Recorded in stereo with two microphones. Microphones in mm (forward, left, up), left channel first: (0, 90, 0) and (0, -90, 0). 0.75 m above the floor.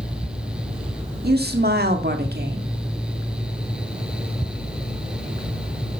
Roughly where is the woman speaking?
Right.